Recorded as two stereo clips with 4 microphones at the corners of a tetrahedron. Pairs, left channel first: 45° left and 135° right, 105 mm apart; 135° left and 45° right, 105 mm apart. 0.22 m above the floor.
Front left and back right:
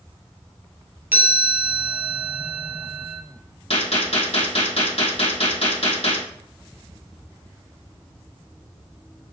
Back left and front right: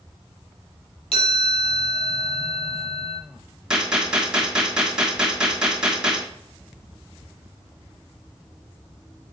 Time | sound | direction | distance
1.1 | a chime | 155° left | 3 m
3.7 | a gunshot | 35° left | 2.5 m